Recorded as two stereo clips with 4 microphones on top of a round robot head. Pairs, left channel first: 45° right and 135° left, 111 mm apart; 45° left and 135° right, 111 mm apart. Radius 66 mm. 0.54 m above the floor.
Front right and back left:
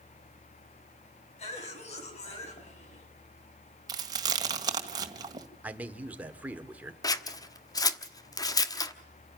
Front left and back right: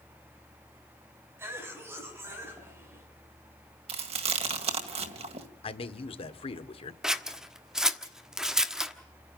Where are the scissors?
55° right, 1.3 m.